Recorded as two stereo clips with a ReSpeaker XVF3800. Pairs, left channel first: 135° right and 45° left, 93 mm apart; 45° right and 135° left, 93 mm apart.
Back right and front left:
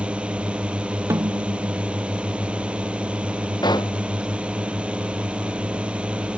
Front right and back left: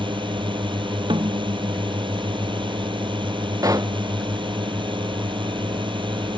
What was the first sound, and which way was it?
A drone, 120° left.